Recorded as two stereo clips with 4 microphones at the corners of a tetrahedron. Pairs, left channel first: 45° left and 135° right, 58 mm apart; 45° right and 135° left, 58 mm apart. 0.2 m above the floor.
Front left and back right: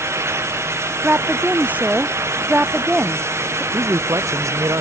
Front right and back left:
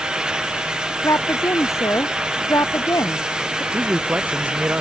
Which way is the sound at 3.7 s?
165° right.